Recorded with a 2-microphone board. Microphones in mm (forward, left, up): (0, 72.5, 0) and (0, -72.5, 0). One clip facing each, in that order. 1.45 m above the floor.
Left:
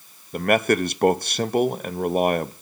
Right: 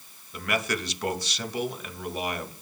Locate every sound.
0.3 s a man speaking: 55° left (ahead or behind), 0.5 m